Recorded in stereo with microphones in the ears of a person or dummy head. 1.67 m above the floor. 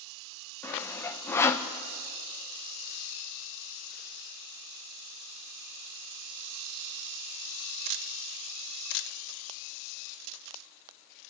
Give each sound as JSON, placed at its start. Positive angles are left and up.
{"t": 0.6, "sound": "sawing", "side_deg": 10, "distance_m": 0.9}